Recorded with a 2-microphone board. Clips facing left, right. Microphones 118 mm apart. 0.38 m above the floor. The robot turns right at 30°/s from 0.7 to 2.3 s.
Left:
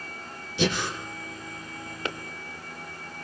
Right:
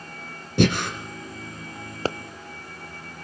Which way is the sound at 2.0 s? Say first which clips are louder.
Right 7 dB; 35° right (ahead or behind).